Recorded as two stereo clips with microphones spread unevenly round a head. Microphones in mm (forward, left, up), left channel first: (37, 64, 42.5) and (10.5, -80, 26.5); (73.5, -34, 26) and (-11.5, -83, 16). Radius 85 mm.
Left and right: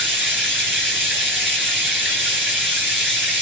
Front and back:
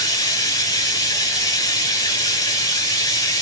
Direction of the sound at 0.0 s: 20° right.